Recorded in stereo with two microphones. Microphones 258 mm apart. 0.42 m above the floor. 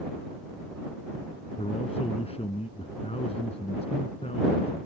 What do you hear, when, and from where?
1.6 s a man speaking: 25° left (ahead or behind)